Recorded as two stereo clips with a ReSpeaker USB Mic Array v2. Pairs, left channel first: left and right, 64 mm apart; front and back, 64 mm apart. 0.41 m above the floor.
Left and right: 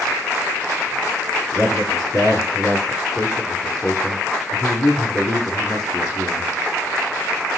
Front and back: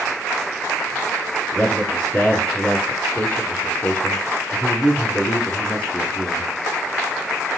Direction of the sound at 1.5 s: 65° left.